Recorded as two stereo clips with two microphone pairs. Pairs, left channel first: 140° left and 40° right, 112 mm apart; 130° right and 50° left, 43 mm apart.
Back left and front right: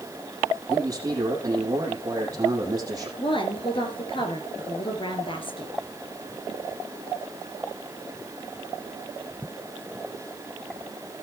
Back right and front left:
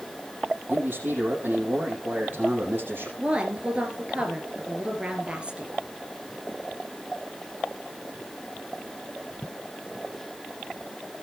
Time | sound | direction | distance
0.7 | a man speaking | 20° left | 4.5 m
3.2 | a woman speaking | 110° left | 3 m